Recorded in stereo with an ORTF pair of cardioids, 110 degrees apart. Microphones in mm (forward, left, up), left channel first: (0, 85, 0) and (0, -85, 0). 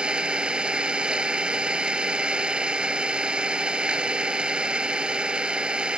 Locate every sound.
0.0 s an engine running: 5° right